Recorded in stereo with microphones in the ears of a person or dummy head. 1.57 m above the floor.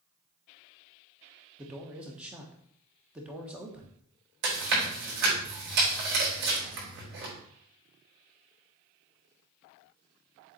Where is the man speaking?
5° right (ahead or behind), 1.3 m.